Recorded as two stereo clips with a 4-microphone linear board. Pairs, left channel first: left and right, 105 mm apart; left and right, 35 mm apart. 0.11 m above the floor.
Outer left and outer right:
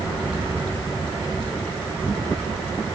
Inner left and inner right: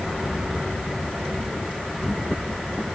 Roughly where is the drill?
I don't hear a drill.